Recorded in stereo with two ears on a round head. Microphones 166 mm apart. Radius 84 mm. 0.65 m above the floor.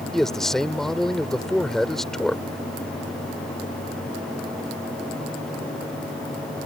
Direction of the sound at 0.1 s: Centre (ahead or behind).